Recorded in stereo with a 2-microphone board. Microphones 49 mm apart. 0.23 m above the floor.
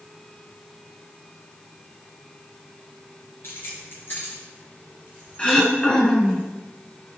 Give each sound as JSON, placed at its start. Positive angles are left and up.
{"t": 3.4, "sound": "keys jangling", "side_deg": 50, "distance_m": 2.5}
{"t": 5.4, "sound": "throat clearing", "side_deg": 15, "distance_m": 1.3}